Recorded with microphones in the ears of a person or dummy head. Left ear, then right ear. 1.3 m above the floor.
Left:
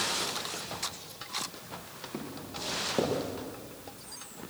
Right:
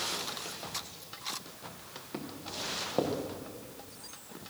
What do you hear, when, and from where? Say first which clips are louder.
2.1 s footsteps: right 1 dB; 45° right (ahead or behind), 6 m